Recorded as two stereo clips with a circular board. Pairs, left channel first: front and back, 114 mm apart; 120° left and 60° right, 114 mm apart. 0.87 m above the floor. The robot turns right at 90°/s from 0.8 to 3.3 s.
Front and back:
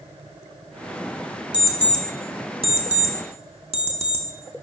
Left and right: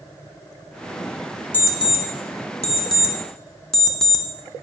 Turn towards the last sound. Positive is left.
turn(degrees=-155)